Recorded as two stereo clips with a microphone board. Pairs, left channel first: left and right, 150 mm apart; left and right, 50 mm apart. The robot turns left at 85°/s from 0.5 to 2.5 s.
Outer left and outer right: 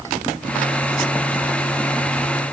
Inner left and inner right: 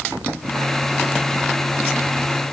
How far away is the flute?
No flute in this recording.